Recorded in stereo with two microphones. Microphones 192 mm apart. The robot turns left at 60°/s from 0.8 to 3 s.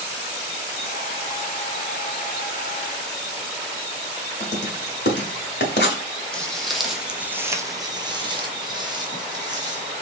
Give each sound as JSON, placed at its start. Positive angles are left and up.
{"t": 4.4, "sound": "writing", "side_deg": 60, "distance_m": 1.0}
{"t": 6.3, "sound": "footsteps", "side_deg": 5, "distance_m": 1.1}